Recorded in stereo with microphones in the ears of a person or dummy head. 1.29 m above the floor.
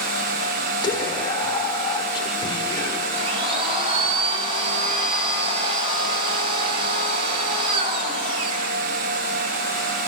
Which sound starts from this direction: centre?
Whispering, at 0.8 s.